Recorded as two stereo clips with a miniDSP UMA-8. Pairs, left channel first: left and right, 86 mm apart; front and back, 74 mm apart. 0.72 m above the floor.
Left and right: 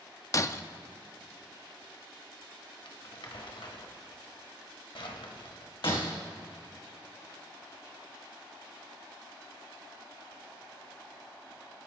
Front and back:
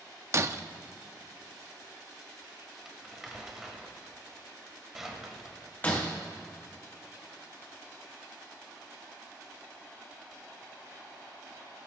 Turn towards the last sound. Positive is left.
turn(degrees=65)